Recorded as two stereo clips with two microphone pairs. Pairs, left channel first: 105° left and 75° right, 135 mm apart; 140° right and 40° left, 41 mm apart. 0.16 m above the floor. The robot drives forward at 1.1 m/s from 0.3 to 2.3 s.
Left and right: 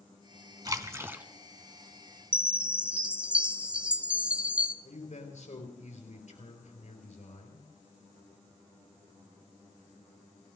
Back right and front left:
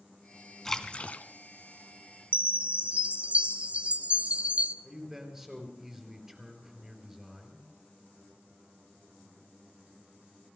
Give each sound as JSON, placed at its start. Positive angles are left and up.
{"t": 0.7, "sound": "a splash", "azimuth_deg": -65, "distance_m": 0.8}
{"t": 2.3, "sound": "a chime", "azimuth_deg": 0, "distance_m": 0.7}
{"t": 4.8, "sound": "a man speaking", "azimuth_deg": 120, "distance_m": 3.5}